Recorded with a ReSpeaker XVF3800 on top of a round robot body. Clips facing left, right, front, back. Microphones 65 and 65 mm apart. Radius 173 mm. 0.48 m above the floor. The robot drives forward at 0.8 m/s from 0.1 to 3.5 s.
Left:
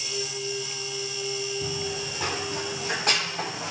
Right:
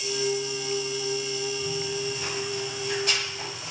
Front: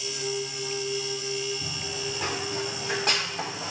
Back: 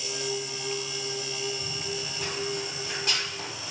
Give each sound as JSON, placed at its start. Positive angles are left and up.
{"t": 1.6, "sound": "running footsteps", "azimuth_deg": 55, "distance_m": 8.0}